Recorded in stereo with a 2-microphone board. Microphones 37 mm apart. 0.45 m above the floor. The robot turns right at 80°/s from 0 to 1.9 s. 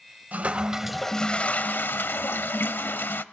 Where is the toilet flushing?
50° right, 0.7 m; by 3.2 s 75° left, 0.7 m.